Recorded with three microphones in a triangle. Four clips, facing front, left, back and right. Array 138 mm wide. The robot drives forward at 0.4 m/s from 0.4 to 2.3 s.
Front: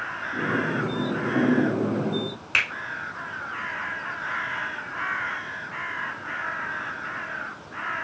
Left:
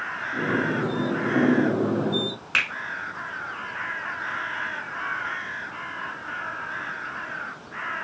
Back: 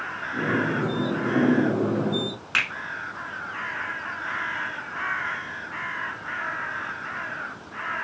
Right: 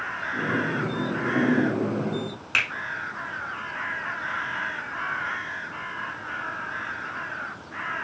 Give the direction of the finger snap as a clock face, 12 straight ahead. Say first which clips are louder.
Even, even; 7 o'clock.